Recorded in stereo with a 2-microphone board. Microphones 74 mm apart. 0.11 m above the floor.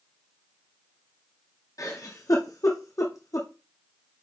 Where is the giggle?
50° left (ahead or behind), 2.5 m.